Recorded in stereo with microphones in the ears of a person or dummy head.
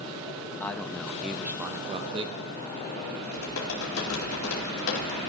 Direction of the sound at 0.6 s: 10° left (ahead or behind).